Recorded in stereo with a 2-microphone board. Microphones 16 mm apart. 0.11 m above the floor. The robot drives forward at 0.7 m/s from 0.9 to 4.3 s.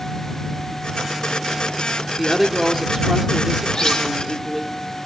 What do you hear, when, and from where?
2.2 s a woman speaking: 5° left (ahead or behind), 1.7 m; by 4.7 s centre (ahead or behind), 3 m
3.7 s cutlery clinking: 50° left (ahead or behind), 2.5 m